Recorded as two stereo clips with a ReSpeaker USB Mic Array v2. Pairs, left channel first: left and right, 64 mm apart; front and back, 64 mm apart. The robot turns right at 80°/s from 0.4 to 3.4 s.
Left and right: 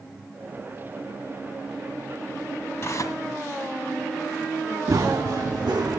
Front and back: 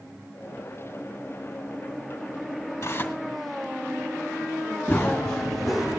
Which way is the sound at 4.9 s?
65° right.